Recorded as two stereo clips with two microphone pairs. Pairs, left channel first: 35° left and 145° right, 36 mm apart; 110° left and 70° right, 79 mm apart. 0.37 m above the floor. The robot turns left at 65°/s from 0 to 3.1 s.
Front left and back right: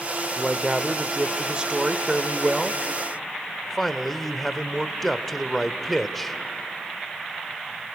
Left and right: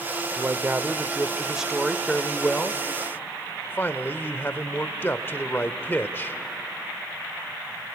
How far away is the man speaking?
About 0.9 m.